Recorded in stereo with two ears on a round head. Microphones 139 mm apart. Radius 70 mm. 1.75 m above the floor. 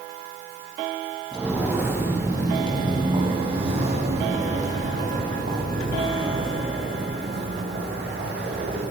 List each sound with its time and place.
1.3 s footsteps: 5° right (ahead or behind), 4 m; by 8.8 s 70° right (ahead or behind), 9 m